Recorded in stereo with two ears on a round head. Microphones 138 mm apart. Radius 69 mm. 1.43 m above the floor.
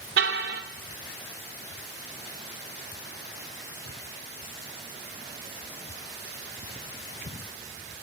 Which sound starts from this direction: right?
A car horn, at 0.2 s.